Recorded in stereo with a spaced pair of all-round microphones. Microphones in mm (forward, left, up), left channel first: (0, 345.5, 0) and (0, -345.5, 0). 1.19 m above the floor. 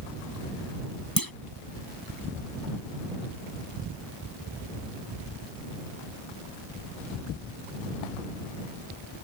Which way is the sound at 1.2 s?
35° left (ahead or behind).